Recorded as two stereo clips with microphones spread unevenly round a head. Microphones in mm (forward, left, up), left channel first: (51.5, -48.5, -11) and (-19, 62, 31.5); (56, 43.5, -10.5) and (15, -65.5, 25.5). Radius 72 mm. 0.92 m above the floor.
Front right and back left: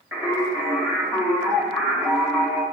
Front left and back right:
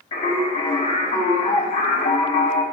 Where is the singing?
50° left, 4.5 m.